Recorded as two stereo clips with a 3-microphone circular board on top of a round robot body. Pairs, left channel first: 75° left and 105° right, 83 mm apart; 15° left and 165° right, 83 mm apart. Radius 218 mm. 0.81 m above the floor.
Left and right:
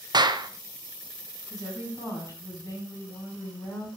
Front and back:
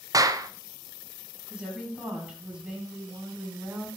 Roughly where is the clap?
Behind right.